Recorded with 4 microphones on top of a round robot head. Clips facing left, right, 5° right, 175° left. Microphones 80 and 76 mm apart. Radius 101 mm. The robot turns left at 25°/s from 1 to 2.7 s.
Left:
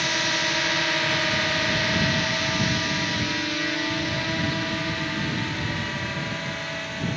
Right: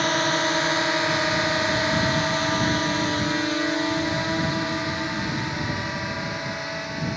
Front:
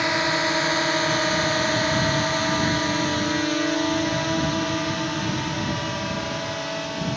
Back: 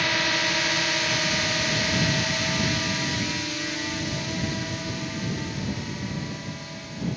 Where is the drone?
60° right; by 7.2 s 15° right.